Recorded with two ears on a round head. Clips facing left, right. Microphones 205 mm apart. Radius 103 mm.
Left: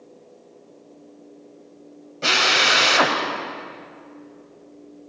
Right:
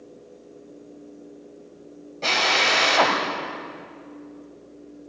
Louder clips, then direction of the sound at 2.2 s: Left 1 dB; 15° left (ahead or behind).